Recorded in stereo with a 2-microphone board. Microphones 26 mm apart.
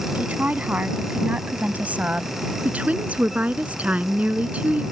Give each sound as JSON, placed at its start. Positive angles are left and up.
{"t": 0.1, "sound": "a woman speaking", "side_deg": -70}
{"t": 2.6, "sound": "a woman speaking", "side_deg": -55}